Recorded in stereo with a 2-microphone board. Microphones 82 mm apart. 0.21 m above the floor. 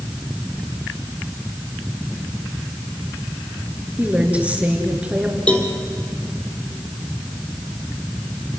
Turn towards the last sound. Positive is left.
turn(degrees=15)  # may be behind; listen again after turning